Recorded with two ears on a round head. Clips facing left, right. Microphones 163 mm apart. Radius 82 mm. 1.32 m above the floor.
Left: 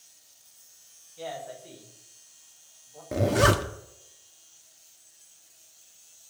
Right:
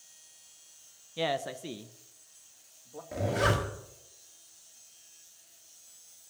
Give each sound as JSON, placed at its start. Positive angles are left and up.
{"t": 1.2, "sound": "a man speaking", "side_deg": -80, "distance_m": 1.0}
{"t": 3.1, "sound": "a zipper", "side_deg": 60, "distance_m": 1.6}